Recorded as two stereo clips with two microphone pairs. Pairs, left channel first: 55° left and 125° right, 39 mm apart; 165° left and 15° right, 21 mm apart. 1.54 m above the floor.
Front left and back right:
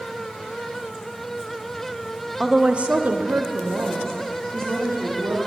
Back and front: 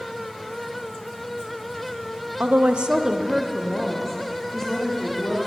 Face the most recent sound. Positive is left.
turn(degrees=-130)